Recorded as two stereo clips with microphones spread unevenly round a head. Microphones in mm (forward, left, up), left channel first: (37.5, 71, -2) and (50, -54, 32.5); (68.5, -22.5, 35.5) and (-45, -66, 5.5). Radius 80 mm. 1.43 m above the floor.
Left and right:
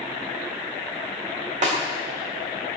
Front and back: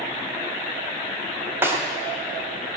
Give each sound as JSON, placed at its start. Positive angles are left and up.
{"t": 1.6, "sound": "a snare drum", "azimuth_deg": -80, "distance_m": 3.0}